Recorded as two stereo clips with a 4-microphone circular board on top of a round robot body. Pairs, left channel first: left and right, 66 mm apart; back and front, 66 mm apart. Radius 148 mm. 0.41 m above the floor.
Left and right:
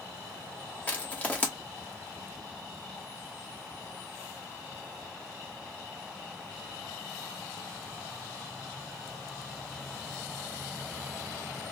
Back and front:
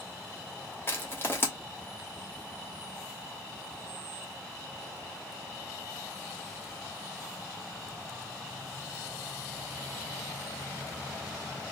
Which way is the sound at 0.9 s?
145° left.